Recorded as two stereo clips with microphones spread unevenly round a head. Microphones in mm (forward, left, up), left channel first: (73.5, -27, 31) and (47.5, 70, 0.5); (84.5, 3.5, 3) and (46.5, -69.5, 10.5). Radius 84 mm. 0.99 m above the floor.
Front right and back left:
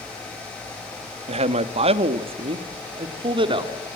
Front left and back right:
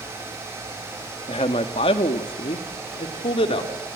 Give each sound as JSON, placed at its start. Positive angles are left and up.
{"t": 1.3, "sound": "a man speaking", "azimuth_deg": 110, "distance_m": 1.3}